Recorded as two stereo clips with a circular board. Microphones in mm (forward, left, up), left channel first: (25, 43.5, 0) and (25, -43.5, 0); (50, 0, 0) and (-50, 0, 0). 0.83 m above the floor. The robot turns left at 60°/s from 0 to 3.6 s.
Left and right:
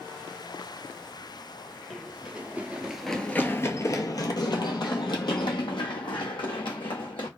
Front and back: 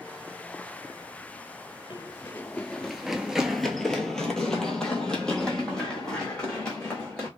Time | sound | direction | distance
1.9 | running footsteps | straight ahead | 1.0 m